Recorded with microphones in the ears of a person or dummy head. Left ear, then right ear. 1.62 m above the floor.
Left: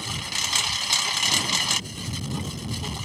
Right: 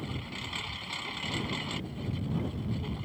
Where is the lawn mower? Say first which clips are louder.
Left 12 dB; 65° left (ahead or behind).